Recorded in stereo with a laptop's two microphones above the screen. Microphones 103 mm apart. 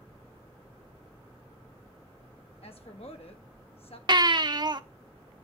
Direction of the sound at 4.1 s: 45° right (ahead or behind).